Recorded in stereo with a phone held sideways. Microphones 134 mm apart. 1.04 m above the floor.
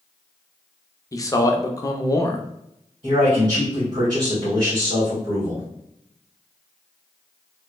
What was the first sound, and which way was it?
A man speaking, 25° left (ahead or behind).